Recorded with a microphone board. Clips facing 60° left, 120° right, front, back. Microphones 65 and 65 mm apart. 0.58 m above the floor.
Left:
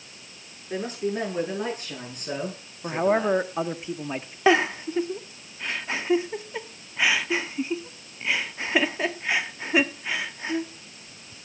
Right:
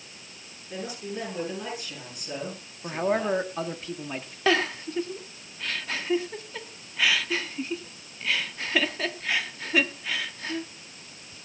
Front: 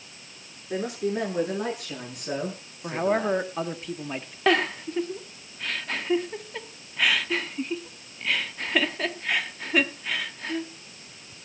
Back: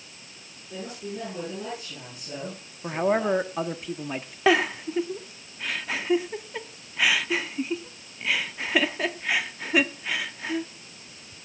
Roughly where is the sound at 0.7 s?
Ahead.